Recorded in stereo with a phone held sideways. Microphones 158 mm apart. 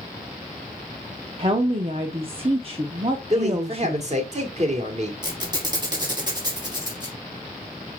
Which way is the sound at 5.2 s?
30° right (ahead or behind).